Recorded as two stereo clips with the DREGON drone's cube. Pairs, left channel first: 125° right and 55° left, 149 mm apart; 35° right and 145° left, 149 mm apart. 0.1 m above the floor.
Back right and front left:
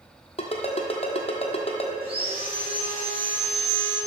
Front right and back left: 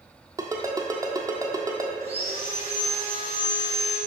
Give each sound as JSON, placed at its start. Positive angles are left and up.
{"t": 0.4, "sound": "a ringtone", "azimuth_deg": -155, "distance_m": 1.2}
{"t": 2.0, "sound": "sawing", "azimuth_deg": 105, "distance_m": 2.0}